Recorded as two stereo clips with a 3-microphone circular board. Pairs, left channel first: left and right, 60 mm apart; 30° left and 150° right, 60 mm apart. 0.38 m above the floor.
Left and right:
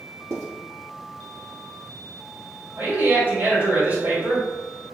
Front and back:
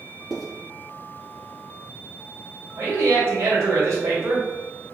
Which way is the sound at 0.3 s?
55° right.